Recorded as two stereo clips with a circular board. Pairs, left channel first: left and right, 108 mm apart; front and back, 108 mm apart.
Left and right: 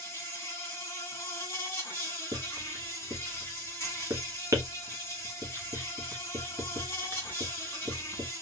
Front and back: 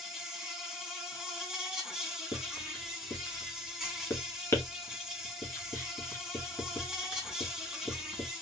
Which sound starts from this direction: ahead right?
Writing, at 2.3 s.